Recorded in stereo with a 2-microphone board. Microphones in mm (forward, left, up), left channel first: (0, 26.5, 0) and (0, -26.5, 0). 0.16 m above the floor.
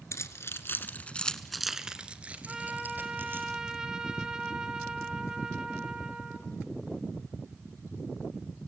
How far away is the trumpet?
About 2 m.